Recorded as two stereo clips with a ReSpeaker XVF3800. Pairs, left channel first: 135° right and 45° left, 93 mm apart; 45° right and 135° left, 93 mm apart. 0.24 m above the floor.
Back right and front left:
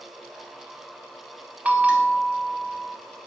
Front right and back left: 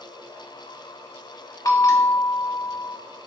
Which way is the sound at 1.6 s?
25° right.